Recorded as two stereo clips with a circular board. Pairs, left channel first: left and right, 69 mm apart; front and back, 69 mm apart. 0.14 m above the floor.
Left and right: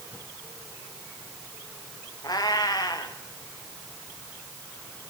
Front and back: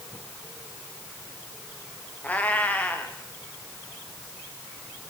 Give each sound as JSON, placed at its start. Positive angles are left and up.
{"t": 2.2, "sound": "a cat meowing", "azimuth_deg": 65, "distance_m": 3.0}